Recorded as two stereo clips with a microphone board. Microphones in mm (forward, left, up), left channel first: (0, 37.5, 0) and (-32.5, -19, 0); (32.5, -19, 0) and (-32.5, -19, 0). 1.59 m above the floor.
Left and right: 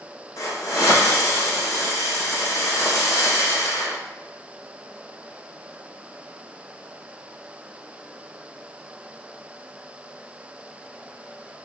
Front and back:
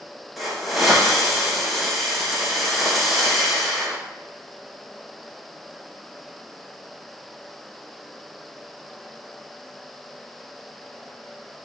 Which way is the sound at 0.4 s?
90° left.